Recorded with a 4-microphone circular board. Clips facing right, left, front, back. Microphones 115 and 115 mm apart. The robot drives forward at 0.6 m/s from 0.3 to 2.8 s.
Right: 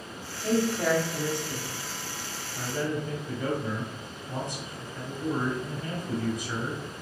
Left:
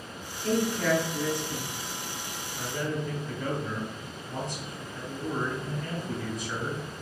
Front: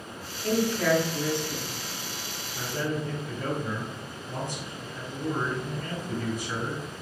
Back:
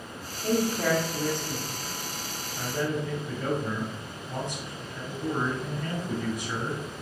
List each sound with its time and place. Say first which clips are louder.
0.4 s a man speaking: right 1 dB, front 1 dB; 120° right, 1.1 m; by 1.6 s 150° right, 1.5 m
2.5 s a man speaking: right 2 dB, back 1 dB; 120° right, 1.4 m; by 6.8 s 130° right, 1.5 m